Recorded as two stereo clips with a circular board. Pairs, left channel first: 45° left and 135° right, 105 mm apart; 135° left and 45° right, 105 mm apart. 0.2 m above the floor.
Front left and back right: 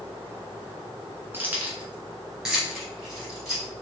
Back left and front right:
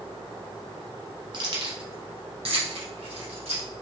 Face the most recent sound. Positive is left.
turn(degrees=-45)